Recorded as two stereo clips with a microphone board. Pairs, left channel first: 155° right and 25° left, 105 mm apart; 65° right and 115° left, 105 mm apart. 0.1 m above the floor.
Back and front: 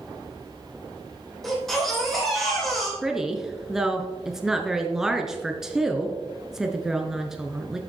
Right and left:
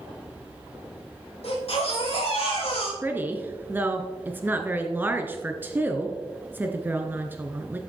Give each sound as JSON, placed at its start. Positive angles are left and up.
{"t": 1.4, "sound": "a baby crying", "azimuth_deg": -70, "distance_m": 4.0}
{"t": 3.0, "sound": "a woman speaking", "azimuth_deg": 95, "distance_m": 1.1}